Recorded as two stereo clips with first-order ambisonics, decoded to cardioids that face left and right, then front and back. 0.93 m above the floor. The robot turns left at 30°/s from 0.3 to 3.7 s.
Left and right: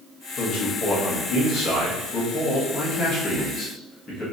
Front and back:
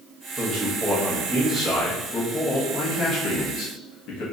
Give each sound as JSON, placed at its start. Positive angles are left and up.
{"t": 0.4, "sound": "a man speaking", "azimuth_deg": 120, "distance_m": 1.3}